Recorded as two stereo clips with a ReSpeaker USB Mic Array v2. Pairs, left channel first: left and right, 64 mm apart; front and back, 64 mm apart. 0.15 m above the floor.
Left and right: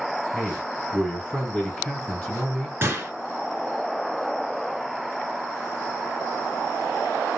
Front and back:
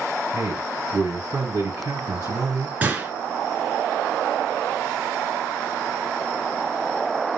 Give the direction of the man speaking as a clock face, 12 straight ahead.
6 o'clock.